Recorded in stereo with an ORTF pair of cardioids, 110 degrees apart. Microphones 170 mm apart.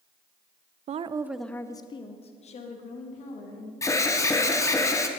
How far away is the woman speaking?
About 0.5 m.